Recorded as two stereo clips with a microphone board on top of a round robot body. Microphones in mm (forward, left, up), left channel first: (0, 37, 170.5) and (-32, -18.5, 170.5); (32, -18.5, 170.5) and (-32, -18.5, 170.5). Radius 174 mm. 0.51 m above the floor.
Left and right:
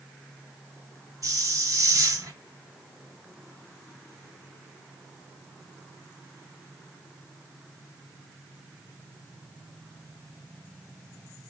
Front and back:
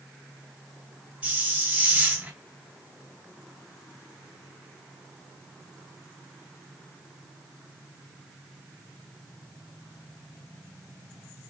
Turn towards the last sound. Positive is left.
turn(degrees=-115)